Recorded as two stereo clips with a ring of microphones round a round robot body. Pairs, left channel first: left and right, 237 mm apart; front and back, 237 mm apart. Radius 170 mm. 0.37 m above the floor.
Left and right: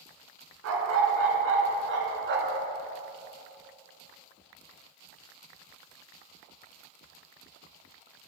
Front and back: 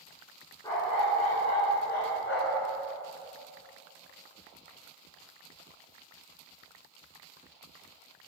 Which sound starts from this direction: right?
A dog barking, at 0.6 s.